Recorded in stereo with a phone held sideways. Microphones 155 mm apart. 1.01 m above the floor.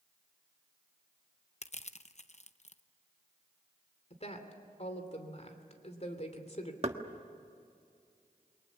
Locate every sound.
1.6 s crushing: 45° left (ahead or behind), 0.7 m
4.1 s a woman speaking: 45° left (ahead or behind), 3 m
6.8 s knocking: 40° right (ahead or behind), 1.4 m